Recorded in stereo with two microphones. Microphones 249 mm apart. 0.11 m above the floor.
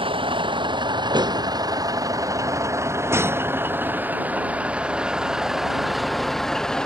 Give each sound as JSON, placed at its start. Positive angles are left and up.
{"t": 0.0, "sound": "a vehicle", "side_deg": -20}